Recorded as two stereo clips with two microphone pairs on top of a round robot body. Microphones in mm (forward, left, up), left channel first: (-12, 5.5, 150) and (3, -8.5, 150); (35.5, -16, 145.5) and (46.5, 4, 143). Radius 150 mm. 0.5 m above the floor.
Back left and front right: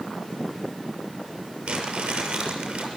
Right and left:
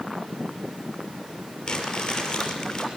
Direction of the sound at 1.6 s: 55° right.